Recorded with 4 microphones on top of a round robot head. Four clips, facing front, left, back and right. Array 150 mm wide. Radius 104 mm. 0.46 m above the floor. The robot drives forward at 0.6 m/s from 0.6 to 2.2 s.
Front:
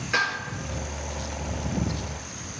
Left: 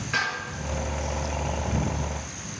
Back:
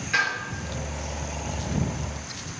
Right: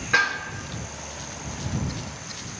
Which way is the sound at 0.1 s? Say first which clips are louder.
Right 5 dB, even; 75° right.